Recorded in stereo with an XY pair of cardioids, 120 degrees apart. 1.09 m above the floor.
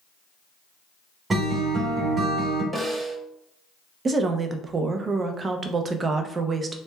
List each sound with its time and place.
1.3 s a guitar: 25° right, 1.5 m
2.7 s a snare drum: straight ahead, 1.0 m
4.0 s a woman speaking: 35° right, 0.5 m